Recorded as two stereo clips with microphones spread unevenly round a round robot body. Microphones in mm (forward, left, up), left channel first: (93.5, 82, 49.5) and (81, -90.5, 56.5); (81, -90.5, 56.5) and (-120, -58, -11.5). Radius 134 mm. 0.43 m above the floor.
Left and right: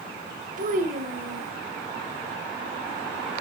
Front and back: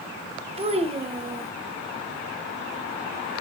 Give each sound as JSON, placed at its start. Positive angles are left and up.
{"t": 0.6, "sound": "a child speaking", "azimuth_deg": -140, "distance_m": 1.5}